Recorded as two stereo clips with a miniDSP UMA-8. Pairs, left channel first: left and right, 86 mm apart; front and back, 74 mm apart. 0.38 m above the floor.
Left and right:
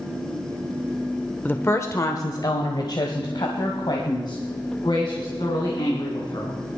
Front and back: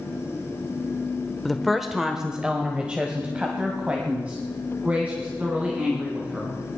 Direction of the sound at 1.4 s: 80° left.